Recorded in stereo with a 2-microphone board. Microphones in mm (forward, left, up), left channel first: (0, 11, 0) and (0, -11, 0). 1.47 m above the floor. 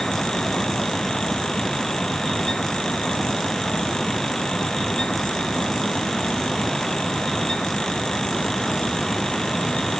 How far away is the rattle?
No rattle in this recording.